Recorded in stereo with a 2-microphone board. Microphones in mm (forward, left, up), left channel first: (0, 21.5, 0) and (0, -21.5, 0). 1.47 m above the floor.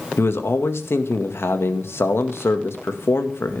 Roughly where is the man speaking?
Left.